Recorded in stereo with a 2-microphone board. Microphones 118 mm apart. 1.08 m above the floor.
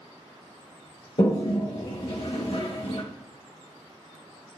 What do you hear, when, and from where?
1.2 s a toilet flushing: 55° left (ahead or behind), 1.5 m